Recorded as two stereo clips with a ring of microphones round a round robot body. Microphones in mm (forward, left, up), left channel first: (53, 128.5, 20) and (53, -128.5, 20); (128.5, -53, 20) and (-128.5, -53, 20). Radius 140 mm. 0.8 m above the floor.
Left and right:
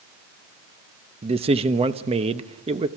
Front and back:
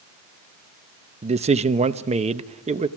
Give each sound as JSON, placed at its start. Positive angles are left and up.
{"t": 1.2, "sound": "a man speaking", "azimuth_deg": -140, "distance_m": 0.8}